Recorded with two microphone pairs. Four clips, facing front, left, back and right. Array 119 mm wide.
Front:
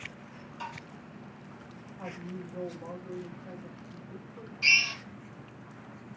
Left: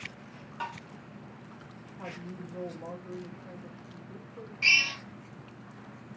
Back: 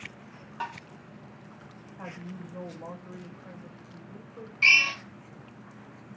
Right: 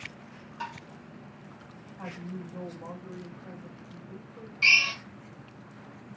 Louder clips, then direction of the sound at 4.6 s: Right 3 dB, back 5 dB; 165° right.